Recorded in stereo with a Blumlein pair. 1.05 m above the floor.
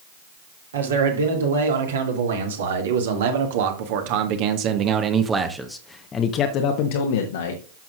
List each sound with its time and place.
0.7 s a man speaking: 70° right, 3.5 m; by 7.6 s 65° left, 1.5 m